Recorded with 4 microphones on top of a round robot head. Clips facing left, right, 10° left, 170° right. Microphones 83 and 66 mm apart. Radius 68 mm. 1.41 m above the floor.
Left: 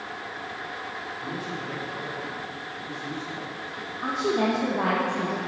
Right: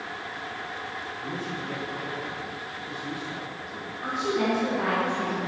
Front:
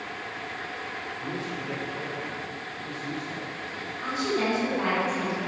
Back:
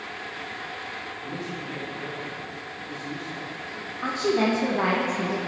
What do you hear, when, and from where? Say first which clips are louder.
1.2 s a man speaking: even, front 2 dB; 15° left, 5 m; by 3.9 s 10° right, 7 m
4.0 s a woman speaking: left 2 dB, back 4 dB; 140° left, 2.0 m